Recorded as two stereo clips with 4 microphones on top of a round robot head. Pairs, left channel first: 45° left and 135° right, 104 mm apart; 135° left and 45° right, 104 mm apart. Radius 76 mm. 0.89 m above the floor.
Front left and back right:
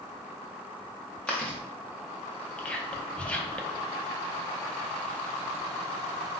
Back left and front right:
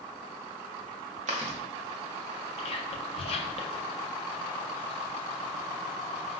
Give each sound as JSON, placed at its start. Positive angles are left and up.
{"t": 1.3, "sound": "chewing", "azimuth_deg": -35, "distance_m": 0.7}
{"t": 2.6, "sound": "whispering", "azimuth_deg": 125, "distance_m": 0.7}